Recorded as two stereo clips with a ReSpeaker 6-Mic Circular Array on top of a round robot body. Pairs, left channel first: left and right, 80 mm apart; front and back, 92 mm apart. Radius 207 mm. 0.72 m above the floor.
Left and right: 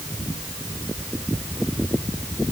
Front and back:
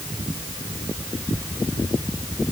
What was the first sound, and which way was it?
Only background noise.